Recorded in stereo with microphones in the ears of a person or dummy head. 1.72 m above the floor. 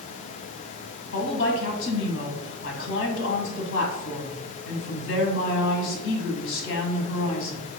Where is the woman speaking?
75° left (ahead or behind), 1.3 m.